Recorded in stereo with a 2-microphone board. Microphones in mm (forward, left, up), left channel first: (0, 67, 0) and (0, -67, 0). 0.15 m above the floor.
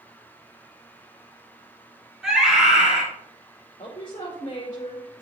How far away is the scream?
About 4.5 m.